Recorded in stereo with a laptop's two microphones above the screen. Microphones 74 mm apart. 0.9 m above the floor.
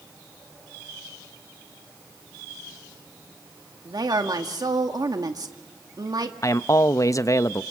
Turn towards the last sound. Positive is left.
turn(degrees=45)  # may be behind; listen again after turning